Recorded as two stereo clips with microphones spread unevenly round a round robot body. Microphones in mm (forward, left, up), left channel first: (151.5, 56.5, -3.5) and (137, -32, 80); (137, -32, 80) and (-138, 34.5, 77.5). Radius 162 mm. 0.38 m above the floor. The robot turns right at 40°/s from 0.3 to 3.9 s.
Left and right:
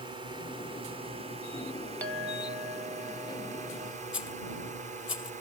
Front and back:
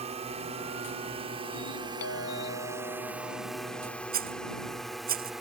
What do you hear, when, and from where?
0.0 s a drone: 165° left; by 5.4 s 105° right
2.0 s a clink: 20° left; by 4.0 s 95° left
4.1 s a rattle: 105° left